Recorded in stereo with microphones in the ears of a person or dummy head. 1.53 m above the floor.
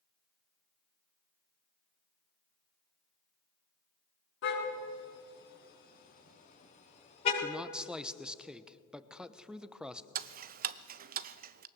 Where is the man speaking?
5° right (ahead or behind), 0.9 m.